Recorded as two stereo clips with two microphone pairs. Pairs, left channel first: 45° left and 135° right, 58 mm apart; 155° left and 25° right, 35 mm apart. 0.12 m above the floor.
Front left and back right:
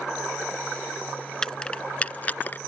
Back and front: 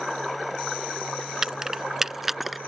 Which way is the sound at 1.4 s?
10° right.